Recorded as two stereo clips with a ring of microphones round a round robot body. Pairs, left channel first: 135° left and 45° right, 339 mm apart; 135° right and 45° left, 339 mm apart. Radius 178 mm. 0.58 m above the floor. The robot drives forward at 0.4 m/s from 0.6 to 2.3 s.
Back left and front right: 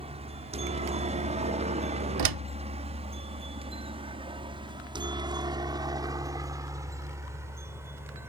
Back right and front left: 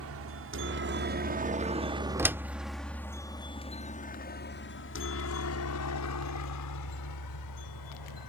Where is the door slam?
35° right; by 2.5 s 40° right.